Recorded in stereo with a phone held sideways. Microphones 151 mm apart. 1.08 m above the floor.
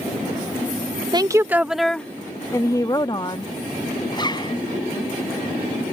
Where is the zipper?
30° left (ahead or behind).